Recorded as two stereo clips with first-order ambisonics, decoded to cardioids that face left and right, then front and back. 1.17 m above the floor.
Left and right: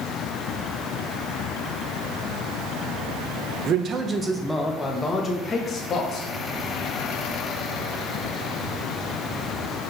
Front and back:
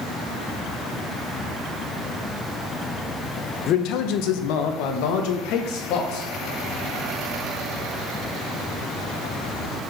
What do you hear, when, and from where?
3.7 s a man speaking: 45° right, 0.8 m; by 6.3 s 30° left, 2 m